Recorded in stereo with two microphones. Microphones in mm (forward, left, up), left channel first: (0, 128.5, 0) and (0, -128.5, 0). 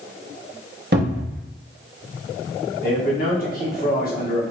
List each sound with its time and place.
0.9 s a cupboard door: 45° right (ahead or behind), 0.7 m
2.8 s a man speaking: 40° left (ahead or behind), 1.2 m